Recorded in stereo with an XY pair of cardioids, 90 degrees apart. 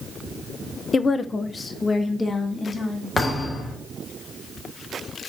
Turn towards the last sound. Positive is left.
turn(degrees=40)